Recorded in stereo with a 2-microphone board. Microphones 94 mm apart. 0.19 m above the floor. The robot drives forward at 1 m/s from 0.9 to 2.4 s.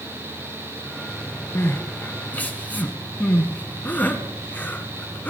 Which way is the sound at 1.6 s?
30° left (ahead or behind).